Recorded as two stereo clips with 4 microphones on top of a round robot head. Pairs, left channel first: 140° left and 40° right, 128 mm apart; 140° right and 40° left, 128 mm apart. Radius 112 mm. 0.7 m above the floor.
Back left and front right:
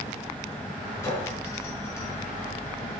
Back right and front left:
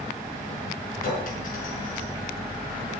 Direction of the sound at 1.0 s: 150° right.